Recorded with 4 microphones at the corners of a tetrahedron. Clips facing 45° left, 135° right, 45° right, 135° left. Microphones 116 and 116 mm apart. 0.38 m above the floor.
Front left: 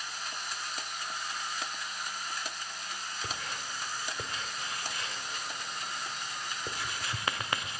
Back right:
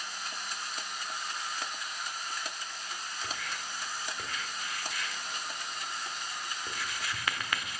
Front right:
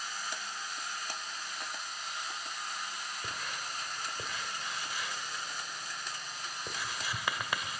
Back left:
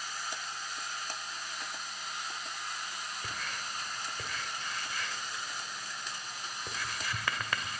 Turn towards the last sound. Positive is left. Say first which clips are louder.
# front left 1 dB, even
turn(degrees=20)